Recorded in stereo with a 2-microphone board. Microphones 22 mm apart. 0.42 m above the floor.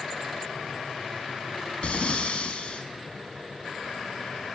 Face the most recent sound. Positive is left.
turn(degrees=60)  # may be behind; listen again after turning